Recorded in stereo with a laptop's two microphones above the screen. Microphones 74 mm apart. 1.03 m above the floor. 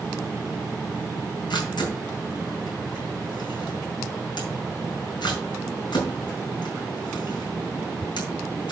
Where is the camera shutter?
85° left, 4.5 m.